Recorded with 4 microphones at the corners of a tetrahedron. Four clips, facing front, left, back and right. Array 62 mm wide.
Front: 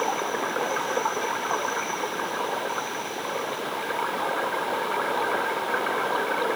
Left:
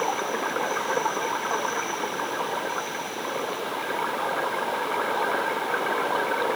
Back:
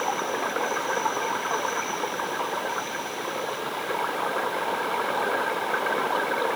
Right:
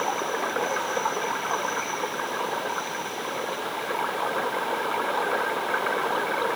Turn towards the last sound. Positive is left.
No sound to turn to.